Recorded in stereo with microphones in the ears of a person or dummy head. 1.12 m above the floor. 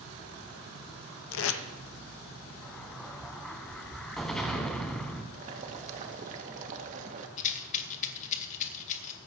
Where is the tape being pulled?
75° left (ahead or behind), 0.9 m.